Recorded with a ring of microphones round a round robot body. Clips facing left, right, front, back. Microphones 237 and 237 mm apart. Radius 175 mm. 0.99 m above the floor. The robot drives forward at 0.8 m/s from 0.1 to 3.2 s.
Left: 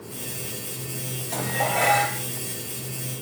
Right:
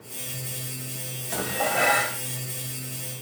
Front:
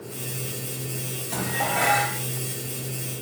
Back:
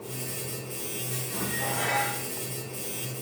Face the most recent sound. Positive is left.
turn(degrees=-15)